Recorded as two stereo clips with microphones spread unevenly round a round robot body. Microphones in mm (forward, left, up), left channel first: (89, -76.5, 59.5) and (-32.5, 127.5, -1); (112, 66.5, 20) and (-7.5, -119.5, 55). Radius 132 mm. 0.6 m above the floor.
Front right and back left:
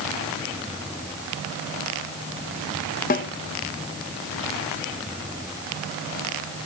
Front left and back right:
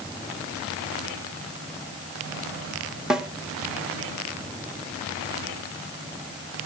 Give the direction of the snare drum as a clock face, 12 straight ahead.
1 o'clock.